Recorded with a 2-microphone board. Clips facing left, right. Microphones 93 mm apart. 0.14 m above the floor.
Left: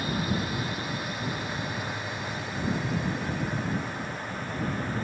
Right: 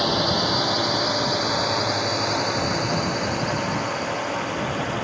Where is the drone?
75° right (ahead or behind).